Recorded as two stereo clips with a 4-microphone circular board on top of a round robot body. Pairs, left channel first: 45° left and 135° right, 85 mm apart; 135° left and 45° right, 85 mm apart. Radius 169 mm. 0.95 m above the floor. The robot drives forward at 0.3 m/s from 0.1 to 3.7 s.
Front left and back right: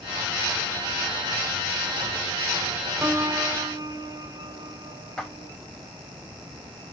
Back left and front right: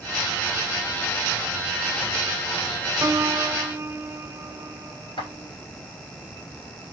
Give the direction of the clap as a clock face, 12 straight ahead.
8 o'clock.